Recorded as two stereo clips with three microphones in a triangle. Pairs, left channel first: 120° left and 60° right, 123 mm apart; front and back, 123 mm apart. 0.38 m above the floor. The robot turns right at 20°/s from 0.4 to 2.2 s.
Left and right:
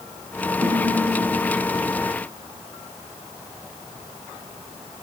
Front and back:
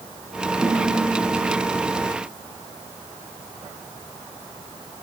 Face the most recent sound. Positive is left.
turn(degrees=-70)